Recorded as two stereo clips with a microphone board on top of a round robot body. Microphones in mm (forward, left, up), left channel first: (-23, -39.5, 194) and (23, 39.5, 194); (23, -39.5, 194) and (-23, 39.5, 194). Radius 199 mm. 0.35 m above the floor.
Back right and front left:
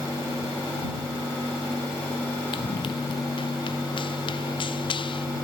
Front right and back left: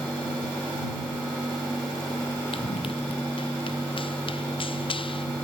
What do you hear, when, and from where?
2.5 s running footsteps: 85° right; by 5.2 s 90° right